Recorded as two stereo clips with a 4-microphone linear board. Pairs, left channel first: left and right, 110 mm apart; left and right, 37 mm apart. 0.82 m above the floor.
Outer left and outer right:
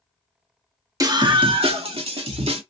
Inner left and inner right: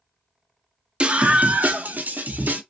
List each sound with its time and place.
1.0 s a scream: 35° right (ahead or behind), 1.1 m; by 2.6 s 80° right, 1.9 m